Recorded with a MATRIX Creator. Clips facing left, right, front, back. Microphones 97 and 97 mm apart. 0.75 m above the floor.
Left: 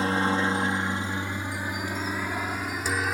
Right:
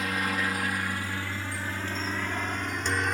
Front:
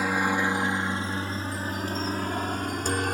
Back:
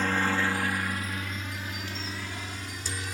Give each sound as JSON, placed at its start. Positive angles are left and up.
{"t": 0.0, "sound": "a helicopter", "azimuth_deg": 70}